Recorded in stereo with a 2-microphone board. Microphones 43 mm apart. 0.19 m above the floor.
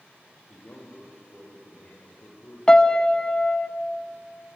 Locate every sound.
0.5 s a man speaking: 45° left (ahead or behind), 6.5 m
2.7 s a piano: 20° left (ahead or behind), 0.8 m